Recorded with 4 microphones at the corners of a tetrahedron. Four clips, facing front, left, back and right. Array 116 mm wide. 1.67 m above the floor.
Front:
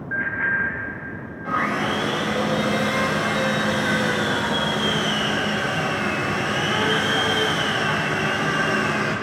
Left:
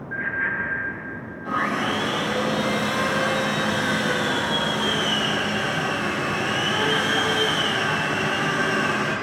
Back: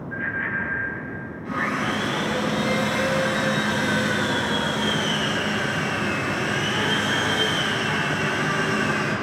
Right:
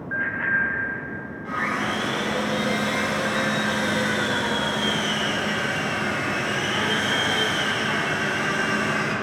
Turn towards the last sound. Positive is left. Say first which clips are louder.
# left 2 dB, front 3 dB
turn(degrees=15)